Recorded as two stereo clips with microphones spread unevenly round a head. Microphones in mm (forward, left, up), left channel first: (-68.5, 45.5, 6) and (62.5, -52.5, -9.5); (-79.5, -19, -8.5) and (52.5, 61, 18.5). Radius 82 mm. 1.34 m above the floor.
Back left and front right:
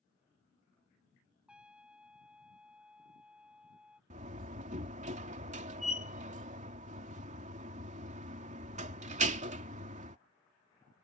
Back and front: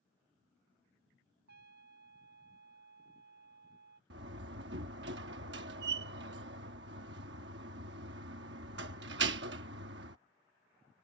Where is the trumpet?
50° left.